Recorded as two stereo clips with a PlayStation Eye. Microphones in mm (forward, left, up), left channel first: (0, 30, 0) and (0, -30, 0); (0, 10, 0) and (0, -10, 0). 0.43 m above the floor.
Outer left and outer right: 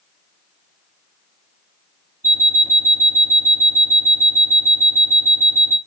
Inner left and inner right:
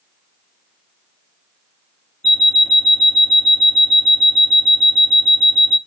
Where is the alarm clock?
70° left (ahead or behind), 1.7 m.